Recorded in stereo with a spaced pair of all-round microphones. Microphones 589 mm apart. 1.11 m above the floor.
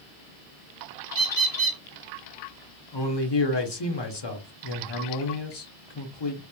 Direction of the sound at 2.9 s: 45° left (ahead or behind).